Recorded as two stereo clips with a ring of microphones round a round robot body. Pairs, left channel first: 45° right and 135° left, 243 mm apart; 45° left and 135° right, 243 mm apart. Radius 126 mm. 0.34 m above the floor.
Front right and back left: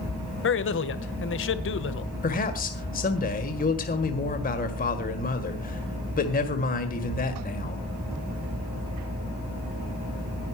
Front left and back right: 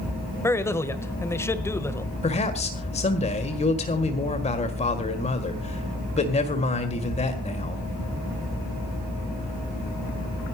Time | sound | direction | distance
0.4 | a man speaking | 30° right | 1.3 m
2.2 | a man speaking | 5° right | 1.7 m